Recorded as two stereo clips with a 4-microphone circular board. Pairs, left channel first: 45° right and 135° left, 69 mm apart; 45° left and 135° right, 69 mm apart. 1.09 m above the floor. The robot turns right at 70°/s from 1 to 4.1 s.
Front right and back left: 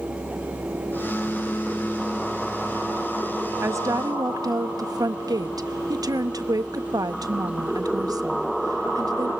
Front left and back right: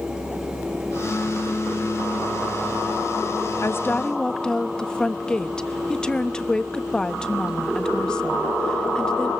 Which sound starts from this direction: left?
A woman speaking, at 3.6 s.